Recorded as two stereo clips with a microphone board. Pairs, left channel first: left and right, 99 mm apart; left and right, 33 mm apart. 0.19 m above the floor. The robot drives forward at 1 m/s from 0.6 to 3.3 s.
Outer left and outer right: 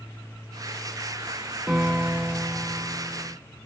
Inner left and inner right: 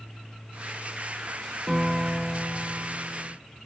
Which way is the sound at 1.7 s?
5° right (ahead or behind).